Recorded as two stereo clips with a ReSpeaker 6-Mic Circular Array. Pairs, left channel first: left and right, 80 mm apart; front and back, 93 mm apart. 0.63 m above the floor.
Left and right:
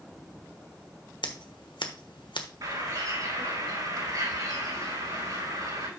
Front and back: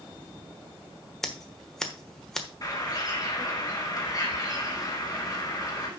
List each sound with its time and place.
1.2 s scissors: 85° left, 1.3 m
2.6 s a bird: 50° right, 3.5 m